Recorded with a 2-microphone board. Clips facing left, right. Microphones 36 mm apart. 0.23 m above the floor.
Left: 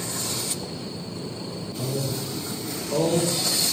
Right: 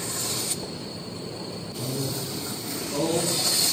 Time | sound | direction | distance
1.8 | a man speaking | 45° left (ahead or behind) | 4.5 m